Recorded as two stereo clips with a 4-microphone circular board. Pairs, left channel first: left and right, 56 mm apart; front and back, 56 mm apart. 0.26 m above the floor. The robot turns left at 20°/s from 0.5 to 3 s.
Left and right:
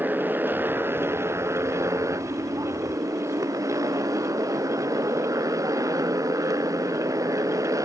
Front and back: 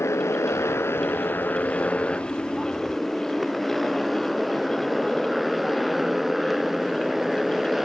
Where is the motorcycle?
35° right; by 7.9 s 95° right.